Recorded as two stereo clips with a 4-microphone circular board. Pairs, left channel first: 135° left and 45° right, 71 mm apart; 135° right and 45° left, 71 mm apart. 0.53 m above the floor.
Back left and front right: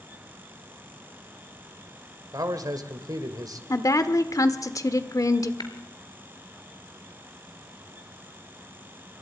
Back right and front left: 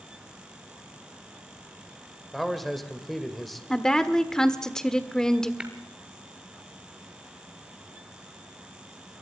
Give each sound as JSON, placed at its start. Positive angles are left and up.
{"t": 2.3, "sound": "a man speaking", "azimuth_deg": -45, "distance_m": 2.0}
{"t": 3.7, "sound": "a woman speaking", "azimuth_deg": 145, "distance_m": 1.3}
{"t": 5.6, "sound": "tapping", "azimuth_deg": 120, "distance_m": 2.0}